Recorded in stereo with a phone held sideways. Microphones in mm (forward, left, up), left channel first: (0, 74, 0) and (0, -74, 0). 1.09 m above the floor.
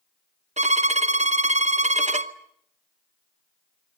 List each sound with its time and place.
0.6 s a violin: 50° right (ahead or behind), 0.8 m